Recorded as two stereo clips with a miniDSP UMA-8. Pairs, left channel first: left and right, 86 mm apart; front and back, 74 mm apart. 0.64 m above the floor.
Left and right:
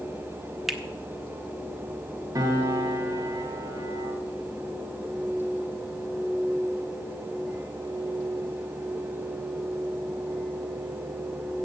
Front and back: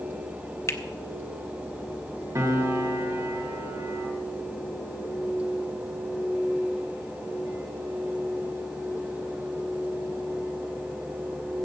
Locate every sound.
0.7 s a finger snap: 5° right, 1.1 m
2.4 s a piano: 130° right, 1.6 m